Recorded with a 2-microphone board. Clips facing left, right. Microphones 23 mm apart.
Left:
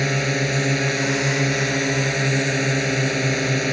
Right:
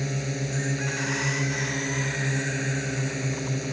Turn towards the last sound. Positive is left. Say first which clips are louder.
# left 9 dB
turn(degrees=45)  # may be behind; listen again after turning